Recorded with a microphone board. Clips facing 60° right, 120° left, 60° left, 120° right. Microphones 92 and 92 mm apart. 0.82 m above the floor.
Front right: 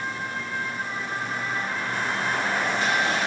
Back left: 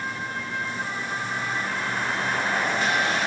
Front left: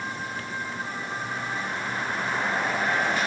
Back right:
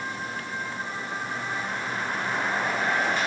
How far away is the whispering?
No whispering in this recording.